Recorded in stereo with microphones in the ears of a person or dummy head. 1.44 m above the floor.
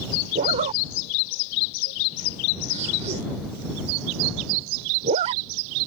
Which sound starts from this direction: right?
A zipper, at 0.3 s.